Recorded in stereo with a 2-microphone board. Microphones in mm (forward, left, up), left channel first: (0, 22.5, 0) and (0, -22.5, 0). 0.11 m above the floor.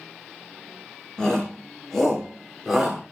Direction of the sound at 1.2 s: 15° left (ahead or behind).